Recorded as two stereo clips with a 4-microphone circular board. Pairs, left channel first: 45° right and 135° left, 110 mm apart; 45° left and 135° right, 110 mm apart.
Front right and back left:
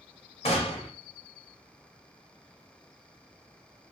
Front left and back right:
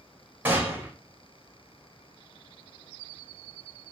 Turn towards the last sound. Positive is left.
turn(degrees=-60)